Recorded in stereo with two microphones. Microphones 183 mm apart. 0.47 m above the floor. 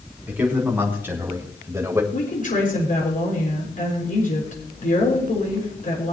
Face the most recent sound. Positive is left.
turn(degrees=50)  # may be behind; listen again after turning